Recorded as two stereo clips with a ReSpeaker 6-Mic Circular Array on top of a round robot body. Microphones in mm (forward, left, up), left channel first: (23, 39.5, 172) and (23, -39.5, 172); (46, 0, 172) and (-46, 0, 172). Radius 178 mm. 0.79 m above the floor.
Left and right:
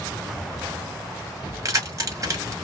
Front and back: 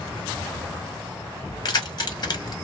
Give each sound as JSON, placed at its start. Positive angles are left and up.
{"t": 1.6, "sound": "keys jangling", "azimuth_deg": -40, "distance_m": 1.4}